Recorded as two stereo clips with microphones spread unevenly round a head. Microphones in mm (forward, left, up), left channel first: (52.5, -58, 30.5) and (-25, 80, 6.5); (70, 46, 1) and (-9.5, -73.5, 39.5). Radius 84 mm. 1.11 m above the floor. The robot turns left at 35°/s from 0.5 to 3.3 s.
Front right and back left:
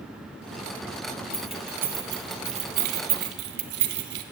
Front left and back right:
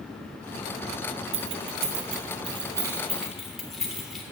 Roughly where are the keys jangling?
Behind right.